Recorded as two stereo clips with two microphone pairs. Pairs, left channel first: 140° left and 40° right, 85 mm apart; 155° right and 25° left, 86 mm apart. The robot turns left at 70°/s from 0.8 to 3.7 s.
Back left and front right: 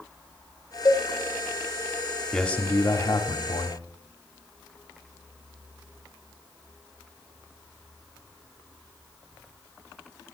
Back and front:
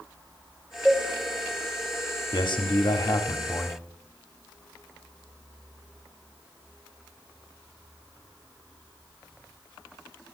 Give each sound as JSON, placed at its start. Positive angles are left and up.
{"t": 0.8, "sound": "a cowbell", "azimuth_deg": 110, "distance_m": 1.5}
{"t": 2.3, "sound": "a man speaking", "azimuth_deg": -135, "distance_m": 1.1}